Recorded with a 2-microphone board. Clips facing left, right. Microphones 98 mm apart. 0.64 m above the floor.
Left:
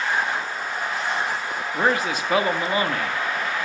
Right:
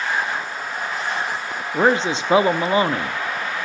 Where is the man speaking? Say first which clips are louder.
Right 5 dB; 25° right (ahead or behind), 0.7 m.